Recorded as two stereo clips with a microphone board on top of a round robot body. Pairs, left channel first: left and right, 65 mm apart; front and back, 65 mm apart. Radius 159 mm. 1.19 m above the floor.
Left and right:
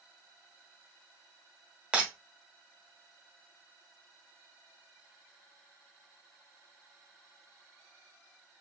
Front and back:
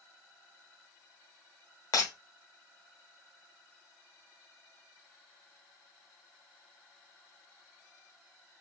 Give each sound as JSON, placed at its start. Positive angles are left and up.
{"t": 1.9, "sound": "breaking glass", "azimuth_deg": -20, "distance_m": 1.3}